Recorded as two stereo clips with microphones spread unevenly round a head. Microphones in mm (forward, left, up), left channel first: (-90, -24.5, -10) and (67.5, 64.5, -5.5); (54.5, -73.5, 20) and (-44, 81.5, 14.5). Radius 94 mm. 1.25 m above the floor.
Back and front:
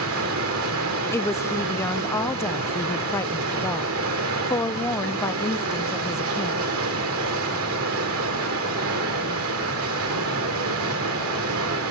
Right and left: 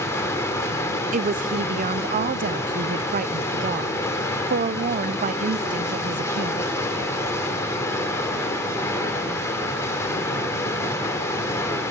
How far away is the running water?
About 3 m.